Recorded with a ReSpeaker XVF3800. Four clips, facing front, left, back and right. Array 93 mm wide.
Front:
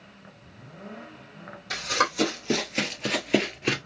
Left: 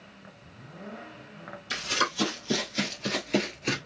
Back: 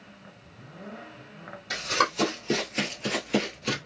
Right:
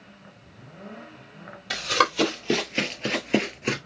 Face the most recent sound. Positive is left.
turn(degrees=-25)